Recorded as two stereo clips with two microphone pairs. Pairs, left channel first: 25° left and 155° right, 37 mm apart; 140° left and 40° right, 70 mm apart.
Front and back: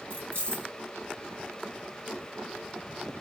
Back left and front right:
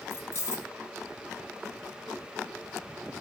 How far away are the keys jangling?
About 1.2 m.